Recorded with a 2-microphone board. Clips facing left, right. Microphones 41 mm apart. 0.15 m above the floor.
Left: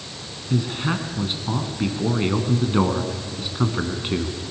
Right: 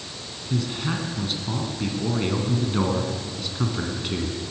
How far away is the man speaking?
About 1.7 m.